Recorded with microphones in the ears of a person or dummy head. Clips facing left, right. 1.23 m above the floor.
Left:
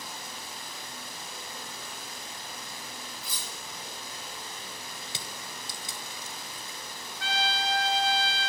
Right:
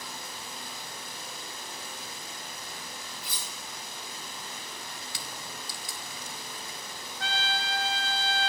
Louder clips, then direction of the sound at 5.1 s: Even; 25° left (ahead or behind).